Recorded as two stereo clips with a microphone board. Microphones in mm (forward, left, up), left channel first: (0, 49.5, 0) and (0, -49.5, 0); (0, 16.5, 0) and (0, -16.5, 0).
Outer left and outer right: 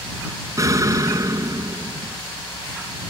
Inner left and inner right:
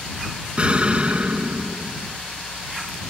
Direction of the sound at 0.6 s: 35° right (ahead or behind).